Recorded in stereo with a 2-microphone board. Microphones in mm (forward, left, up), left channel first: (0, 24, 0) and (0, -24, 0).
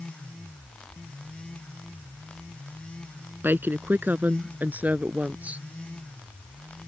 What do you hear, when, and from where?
3.4 s a woman speaking: 45° right (ahead or behind); by 5.6 s 30° right (ahead or behind)